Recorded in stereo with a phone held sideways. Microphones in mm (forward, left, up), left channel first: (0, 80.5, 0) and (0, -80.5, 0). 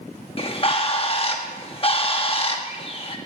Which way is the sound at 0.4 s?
35° left (ahead or behind).